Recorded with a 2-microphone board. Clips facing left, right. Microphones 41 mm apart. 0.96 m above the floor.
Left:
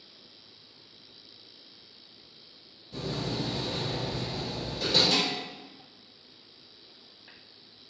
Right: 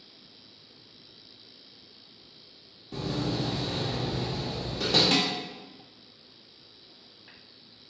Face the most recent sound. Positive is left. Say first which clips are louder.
# right 2 dB
turn(degrees=-45)  # may be behind; listen again after turning